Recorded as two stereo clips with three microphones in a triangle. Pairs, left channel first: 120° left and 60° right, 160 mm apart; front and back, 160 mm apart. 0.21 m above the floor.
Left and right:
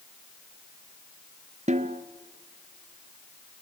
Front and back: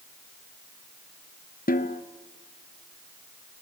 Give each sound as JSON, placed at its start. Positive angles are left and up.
{"t": 1.7, "sound": "a snare drum", "azimuth_deg": -20, "distance_m": 0.9}